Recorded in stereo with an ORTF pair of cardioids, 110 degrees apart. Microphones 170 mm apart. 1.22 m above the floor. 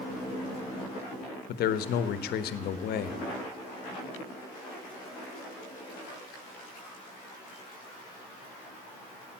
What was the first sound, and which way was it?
A man speaking, 70° left.